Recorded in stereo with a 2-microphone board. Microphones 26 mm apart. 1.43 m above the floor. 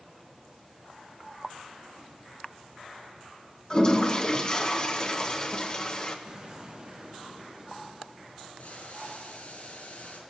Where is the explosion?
35° right (ahead or behind), 2 m.